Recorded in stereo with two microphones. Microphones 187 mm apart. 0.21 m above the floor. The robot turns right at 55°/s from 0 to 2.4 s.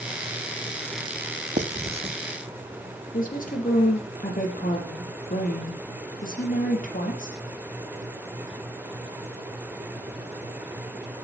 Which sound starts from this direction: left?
A woman speaking, at 3.1 s.